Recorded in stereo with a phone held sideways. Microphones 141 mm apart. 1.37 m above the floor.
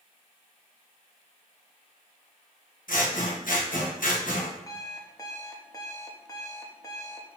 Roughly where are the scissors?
Left.